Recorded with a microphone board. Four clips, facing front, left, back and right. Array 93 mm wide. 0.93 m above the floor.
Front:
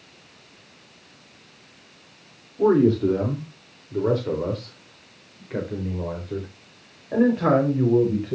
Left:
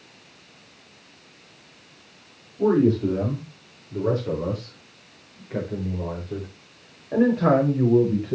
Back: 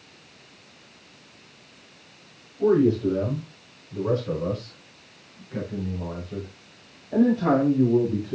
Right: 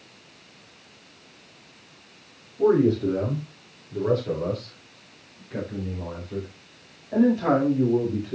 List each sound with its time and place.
2.6 s a man speaking: 5° right, 3.5 m; by 8.3 s 40° left, 5 m